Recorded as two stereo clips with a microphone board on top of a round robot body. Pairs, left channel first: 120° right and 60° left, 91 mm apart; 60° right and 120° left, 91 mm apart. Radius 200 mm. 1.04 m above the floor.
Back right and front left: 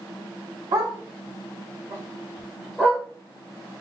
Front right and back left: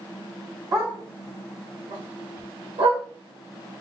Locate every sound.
0.7 s a dog barking: 70° left, 2 m; by 3.0 s 165° left, 1.5 m